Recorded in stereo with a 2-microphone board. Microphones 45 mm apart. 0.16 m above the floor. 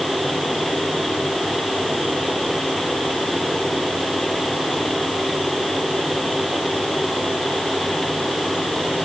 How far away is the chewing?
I don't hear chewing.